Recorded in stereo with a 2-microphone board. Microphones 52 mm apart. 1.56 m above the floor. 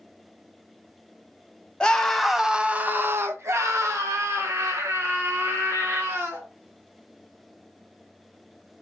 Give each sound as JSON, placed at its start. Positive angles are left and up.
{"t": 1.8, "sound": "a scream", "side_deg": 20, "distance_m": 0.9}